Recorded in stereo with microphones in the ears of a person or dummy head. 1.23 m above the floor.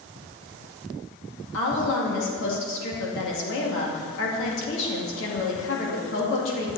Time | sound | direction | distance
1.5 | a woman speaking | 70° left (ahead or behind) | 2 m